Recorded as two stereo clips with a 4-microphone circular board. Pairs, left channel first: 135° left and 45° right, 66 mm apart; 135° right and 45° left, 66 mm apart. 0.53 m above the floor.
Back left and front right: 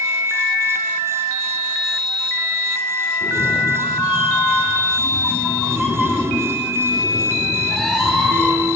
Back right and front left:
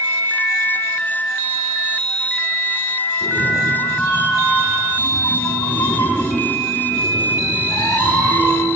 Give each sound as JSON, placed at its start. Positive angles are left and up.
{"t": 3.2, "sound": "a cat meowing", "azimuth_deg": -95, "distance_m": 0.6}